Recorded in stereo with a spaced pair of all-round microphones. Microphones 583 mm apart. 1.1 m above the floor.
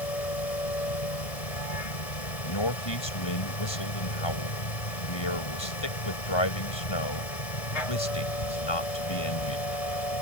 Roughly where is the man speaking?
Left.